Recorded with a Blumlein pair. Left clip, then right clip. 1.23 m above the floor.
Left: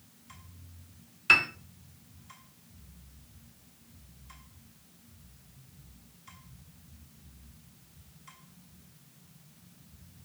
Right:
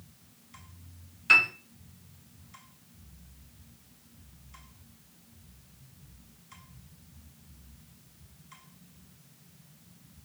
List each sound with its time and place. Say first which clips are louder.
1.3 s a piano: right 2 dB; 15° left, 0.6 m